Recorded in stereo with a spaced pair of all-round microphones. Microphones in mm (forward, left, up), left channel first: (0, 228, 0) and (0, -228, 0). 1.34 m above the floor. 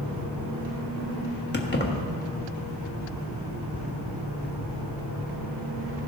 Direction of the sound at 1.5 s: 20° left (ahead or behind).